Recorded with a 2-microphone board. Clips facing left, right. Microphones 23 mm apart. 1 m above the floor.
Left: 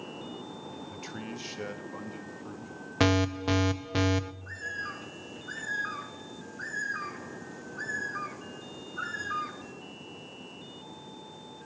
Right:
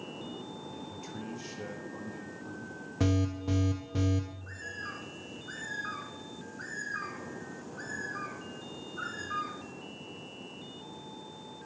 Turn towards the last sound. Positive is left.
turn(degrees=15)  # may be behind; listen again after turning